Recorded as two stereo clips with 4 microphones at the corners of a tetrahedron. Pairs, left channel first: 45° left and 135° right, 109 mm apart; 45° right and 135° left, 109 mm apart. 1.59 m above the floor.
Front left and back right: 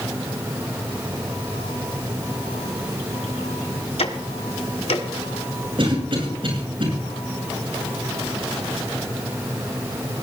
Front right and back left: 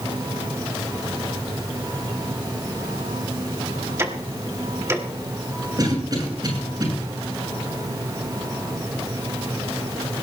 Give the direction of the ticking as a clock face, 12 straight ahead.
10 o'clock.